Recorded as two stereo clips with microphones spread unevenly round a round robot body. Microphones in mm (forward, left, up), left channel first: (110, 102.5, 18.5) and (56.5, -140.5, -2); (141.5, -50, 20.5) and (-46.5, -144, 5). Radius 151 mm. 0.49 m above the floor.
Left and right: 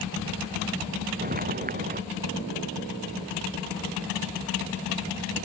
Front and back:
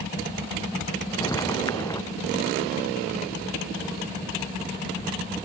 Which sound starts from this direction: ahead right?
Footsteps, at 1.2 s.